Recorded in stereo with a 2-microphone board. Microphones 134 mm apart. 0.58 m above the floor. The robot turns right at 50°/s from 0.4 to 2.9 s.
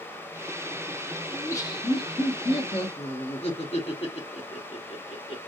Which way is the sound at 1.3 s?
20° left.